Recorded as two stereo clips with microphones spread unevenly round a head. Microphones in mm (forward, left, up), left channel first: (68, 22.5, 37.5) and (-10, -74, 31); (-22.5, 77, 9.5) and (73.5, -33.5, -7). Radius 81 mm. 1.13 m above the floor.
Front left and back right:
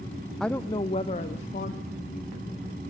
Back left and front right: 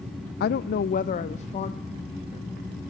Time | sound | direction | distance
0.4 | a woman speaking | 140° left | 0.5 m